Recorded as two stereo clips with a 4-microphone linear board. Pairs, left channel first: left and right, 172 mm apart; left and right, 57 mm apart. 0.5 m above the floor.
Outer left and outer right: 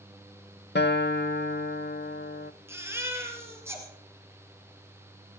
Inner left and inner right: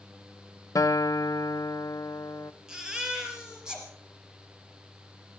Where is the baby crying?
15° right (ahead or behind), 3.5 m.